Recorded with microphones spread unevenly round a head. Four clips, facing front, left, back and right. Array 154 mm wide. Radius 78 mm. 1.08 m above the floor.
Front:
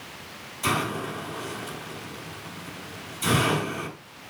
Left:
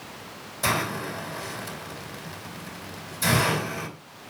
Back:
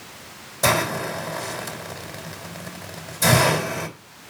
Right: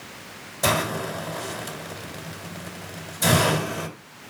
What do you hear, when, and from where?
0.6 s a hiss: 155° right, 3 m